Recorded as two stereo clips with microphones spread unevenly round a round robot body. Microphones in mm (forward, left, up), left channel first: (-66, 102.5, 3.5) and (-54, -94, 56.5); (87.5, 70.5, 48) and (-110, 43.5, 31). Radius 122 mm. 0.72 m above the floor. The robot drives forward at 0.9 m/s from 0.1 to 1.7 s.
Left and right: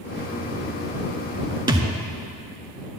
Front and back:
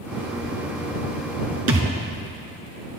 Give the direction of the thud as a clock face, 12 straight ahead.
5 o'clock.